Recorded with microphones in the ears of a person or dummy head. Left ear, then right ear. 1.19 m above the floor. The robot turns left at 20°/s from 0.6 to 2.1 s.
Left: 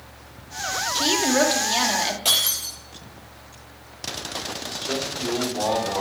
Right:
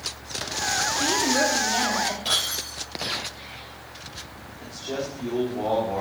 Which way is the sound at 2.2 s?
35° left (ahead or behind).